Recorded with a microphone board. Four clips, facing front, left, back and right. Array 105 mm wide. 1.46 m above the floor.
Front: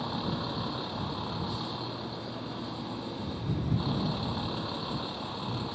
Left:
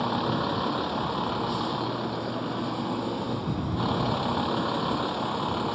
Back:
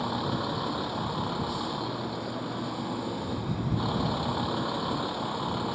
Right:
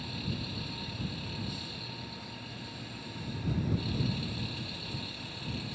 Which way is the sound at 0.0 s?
100° left.